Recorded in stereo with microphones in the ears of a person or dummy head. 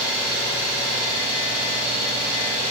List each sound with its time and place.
0.0 s an engine running: 50° left (ahead or behind), 1.8 m